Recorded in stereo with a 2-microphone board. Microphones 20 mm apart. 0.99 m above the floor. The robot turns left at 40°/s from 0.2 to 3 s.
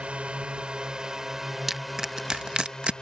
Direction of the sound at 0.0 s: 110° right.